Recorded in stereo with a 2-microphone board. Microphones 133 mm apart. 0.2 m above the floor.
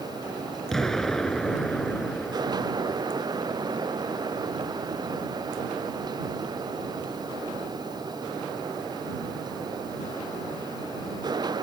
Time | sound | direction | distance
0.7 | an explosion | 5° left (ahead or behind) | ?